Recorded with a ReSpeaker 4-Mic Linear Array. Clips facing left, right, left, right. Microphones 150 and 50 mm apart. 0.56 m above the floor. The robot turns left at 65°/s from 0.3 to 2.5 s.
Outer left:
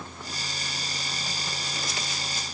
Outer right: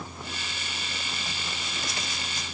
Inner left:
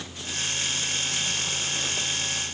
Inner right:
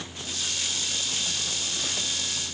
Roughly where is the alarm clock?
No alarm clock in this recording.